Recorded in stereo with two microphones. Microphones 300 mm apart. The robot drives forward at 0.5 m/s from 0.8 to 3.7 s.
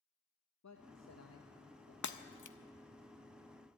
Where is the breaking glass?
65° left (ahead or behind), 0.6 m; by 2.6 s 85° left, 0.6 m.